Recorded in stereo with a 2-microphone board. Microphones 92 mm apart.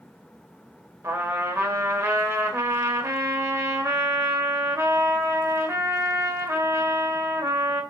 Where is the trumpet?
30° right (ahead or behind), 0.5 m.